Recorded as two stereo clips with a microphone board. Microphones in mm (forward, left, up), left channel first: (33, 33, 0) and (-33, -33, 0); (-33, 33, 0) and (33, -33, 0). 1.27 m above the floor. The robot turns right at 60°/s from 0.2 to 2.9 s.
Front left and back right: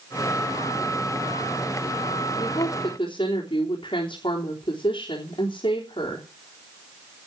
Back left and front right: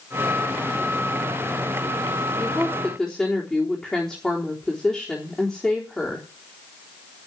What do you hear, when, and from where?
2.4 s a woman speaking: 15° left, 3.5 m; by 6.3 s 50° left, 3.5 m